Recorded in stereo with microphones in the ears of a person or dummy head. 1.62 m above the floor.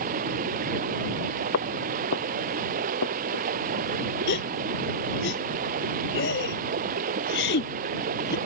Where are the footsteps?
70° left (ahead or behind); by 3.5 s 75° left (ahead or behind).